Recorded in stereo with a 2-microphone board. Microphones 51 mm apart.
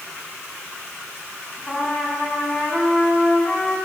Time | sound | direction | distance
1.7 | a trumpet | 15° left (ahead or behind) | 3.5 m